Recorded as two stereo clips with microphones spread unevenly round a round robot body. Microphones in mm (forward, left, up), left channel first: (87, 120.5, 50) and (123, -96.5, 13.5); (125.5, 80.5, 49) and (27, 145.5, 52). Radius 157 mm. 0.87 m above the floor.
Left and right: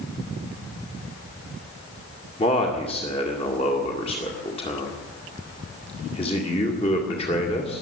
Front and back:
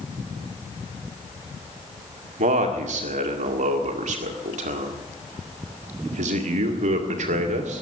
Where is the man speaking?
175° left, 2.0 m.